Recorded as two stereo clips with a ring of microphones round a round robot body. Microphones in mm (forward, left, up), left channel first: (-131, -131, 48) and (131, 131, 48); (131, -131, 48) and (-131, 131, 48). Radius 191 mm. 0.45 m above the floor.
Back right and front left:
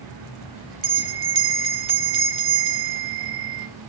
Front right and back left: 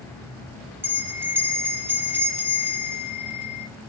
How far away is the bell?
About 0.8 m.